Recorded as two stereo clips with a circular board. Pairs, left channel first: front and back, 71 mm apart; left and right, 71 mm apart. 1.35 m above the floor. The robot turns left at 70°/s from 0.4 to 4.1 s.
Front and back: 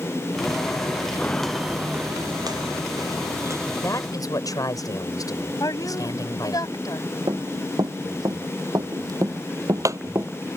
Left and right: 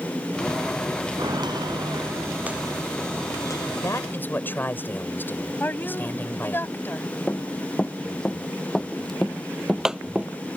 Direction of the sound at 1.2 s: 70° right.